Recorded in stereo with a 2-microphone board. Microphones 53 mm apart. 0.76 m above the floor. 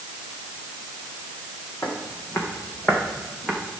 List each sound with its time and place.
1.8 s footsteps: 60° left (ahead or behind), 3 m; by 3.6 s 5° left (ahead or behind), 2.5 m